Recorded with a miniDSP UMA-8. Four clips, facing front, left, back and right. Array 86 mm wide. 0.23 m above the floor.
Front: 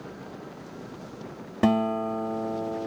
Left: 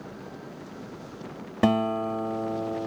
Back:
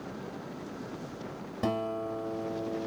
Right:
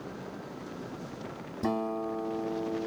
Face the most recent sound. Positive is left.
turn(degrees=60)